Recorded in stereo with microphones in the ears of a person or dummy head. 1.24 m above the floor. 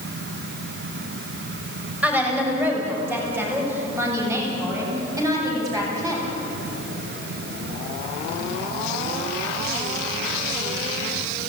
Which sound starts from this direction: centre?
A woman speaking, at 2.0 s.